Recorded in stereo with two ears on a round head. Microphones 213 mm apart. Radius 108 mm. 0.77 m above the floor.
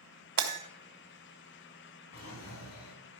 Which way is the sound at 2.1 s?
65° left (ahead or behind).